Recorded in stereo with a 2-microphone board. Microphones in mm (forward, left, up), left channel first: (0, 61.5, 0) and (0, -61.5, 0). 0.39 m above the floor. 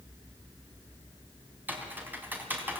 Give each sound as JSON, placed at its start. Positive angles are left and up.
{"t": 1.7, "sound": "typing on a keyboard", "side_deg": -15, "distance_m": 3.5}